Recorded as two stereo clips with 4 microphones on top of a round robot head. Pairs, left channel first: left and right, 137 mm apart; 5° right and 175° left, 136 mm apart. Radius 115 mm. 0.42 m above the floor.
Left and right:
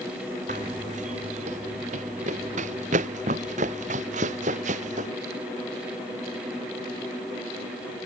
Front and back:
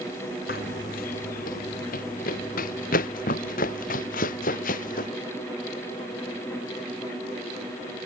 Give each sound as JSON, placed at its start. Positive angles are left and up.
{"t": 0.5, "sound": "running footsteps", "azimuth_deg": -40}